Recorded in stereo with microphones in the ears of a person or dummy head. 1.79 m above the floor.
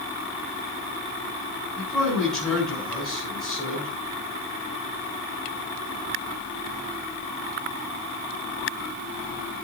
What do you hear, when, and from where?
1.8 s a man speaking: 5° left (ahead or behind), 8.5 m